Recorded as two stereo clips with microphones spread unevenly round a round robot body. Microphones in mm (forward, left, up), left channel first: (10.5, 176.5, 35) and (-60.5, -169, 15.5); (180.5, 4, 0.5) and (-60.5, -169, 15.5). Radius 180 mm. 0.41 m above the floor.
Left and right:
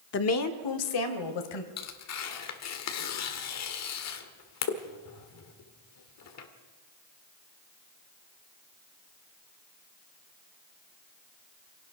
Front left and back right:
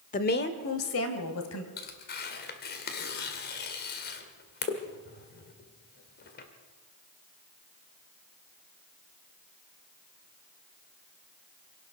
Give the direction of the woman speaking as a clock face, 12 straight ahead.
10 o'clock.